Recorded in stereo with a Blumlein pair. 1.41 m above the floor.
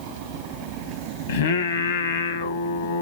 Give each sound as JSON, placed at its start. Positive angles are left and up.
{"t": 1.3, "sound": "singing", "azimuth_deg": 65, "distance_m": 1.1}